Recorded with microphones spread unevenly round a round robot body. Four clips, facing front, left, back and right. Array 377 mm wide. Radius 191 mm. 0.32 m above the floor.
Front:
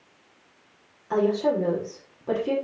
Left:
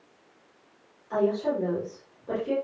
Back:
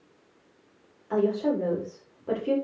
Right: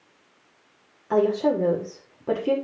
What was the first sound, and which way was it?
A woman speaking, 75° right.